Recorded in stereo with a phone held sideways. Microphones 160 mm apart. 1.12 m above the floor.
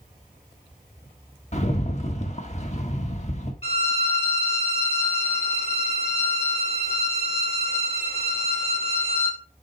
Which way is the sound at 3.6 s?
40° left (ahead or behind).